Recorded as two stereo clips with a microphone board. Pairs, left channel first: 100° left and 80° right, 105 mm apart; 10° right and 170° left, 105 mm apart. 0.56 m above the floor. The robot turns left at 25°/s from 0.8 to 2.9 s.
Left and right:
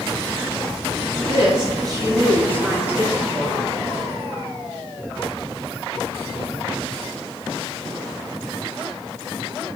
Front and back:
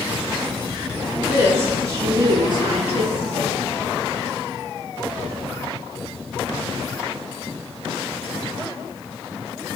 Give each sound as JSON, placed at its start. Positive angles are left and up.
{"t": 1.2, "sound": "a woman speaking", "azimuth_deg": -115, "distance_m": 6.5}